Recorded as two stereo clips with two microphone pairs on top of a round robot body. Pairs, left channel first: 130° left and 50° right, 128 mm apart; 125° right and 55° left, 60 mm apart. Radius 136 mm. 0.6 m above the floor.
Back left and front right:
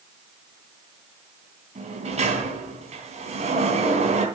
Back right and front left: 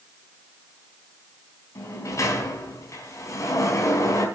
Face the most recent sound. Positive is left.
turn(degrees=-90)